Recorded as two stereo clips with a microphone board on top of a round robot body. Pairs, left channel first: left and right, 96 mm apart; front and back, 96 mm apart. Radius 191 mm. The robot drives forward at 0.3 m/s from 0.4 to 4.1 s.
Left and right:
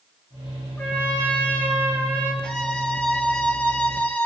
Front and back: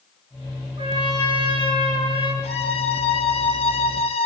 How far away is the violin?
About 1.9 m.